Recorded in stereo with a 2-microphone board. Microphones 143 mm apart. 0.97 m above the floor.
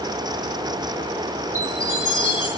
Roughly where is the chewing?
No chewing in this recording.